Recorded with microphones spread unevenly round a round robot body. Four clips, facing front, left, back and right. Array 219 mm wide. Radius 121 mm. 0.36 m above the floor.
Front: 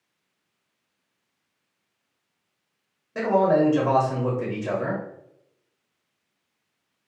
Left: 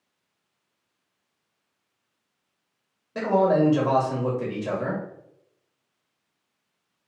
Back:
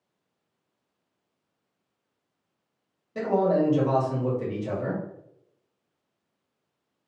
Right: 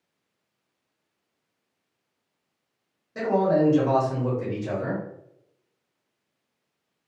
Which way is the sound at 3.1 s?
55° left.